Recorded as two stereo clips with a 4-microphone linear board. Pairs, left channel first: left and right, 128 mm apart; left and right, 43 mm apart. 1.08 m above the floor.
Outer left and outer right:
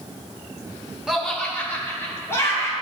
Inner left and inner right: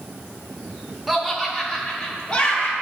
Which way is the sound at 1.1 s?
5° right (ahead or behind).